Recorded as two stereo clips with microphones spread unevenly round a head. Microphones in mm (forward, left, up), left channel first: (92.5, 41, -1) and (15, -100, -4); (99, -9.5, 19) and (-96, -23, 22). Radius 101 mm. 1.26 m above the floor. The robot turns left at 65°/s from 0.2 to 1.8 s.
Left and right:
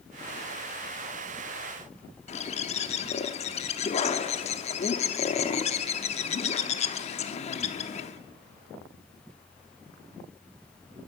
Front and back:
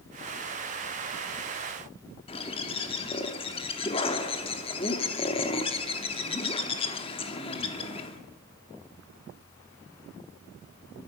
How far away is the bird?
About 0.9 m.